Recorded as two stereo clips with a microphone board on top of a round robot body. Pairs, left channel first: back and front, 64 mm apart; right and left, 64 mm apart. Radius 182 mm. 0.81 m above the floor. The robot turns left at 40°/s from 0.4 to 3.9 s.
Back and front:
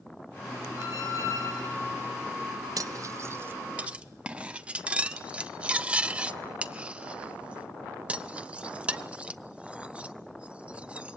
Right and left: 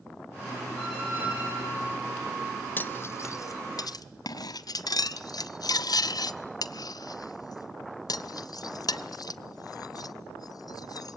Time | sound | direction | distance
0.8 | a squeak | 170° left | 5 m
2.8 | cutlery clinking | 25° right | 0.6 m